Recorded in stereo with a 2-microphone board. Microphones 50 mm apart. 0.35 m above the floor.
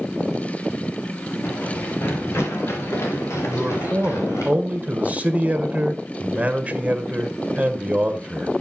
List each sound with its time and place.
1.4 s running footsteps: 45° left (ahead or behind), 3 m; by 4.5 s 75° left (ahead or behind), 5.5 m
3.5 s a man speaking: 30° right (ahead or behind), 1.2 m